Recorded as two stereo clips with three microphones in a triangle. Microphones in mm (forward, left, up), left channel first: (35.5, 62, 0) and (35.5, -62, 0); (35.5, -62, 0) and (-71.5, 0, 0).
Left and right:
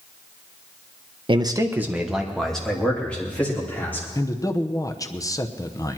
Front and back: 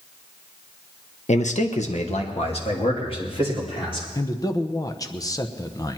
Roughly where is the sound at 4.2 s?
Ahead left.